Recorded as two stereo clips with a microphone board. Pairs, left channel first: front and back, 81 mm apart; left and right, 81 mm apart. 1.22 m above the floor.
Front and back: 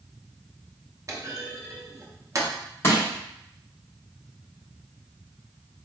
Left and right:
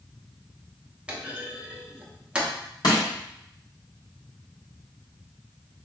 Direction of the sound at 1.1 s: 160° right.